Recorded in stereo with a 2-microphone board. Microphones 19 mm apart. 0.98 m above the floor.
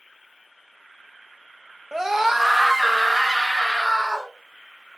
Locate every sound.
1.9 s a scream: 25° right (ahead or behind), 0.7 m; by 4.3 s 10° right (ahead or behind), 2.5 m